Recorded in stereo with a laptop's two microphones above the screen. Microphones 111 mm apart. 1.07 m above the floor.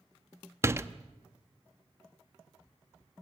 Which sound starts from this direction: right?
A door slam, at 0.6 s.